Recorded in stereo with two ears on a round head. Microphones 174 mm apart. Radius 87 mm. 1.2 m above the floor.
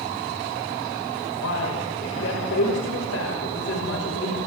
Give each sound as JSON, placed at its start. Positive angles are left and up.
{"t": 1.4, "sound": "a man speaking", "side_deg": 75, "distance_m": 6.0}